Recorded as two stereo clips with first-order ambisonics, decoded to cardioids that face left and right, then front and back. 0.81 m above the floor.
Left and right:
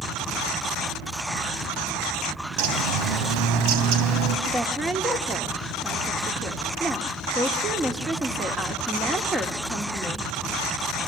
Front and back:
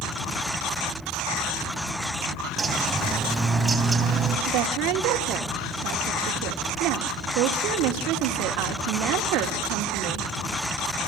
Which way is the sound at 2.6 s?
100° right.